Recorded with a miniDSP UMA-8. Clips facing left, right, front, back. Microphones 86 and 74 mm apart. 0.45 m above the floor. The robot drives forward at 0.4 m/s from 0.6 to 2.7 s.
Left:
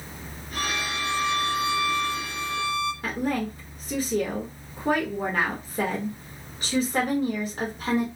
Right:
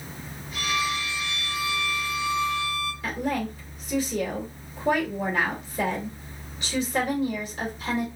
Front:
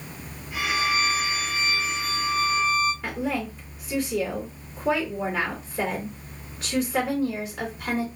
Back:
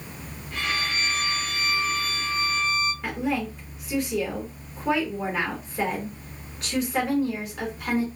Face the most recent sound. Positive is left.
turn(degrees=90)